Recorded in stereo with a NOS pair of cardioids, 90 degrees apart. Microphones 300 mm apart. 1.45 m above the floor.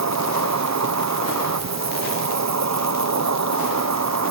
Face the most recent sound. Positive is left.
turn(degrees=-65)